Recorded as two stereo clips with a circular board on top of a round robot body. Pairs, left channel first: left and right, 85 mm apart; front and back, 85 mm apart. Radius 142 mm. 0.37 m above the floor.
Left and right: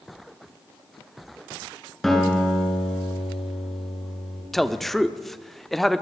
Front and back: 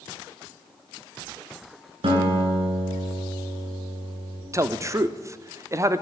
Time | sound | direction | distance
2.0 | a guitar | 175° left | 8.5 m
4.5 | a man speaking | 175° left | 1.6 m